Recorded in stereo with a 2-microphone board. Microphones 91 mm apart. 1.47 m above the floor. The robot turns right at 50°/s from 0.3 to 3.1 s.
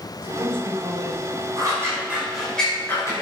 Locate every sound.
0.2 s a man speaking: 90° right, 6 m; by 1.5 s 35° right, 6 m
1.6 s scissors: 45° right (ahead or behind), 5.5 m; by 3.2 s 35° left (ahead or behind), 5.5 m